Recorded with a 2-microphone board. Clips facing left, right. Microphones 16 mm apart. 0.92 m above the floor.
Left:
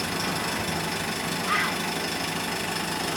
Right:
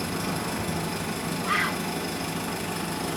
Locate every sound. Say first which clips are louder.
0.0 s an engine running: left 2 dB; 80° left, 3.5 m
1.4 s a bird: even; 5° left (ahead or behind), 1.4 m